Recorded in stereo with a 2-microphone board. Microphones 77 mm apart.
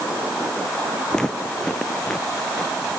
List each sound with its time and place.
1.1 s footsteps: 10° left (ahead or behind)